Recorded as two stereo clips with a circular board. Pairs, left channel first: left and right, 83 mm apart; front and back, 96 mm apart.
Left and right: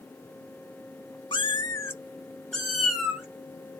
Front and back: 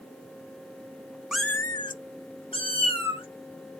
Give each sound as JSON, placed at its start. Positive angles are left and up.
{"t": 1.3, "sound": "a cat meowing", "azimuth_deg": 95, "distance_m": 0.5}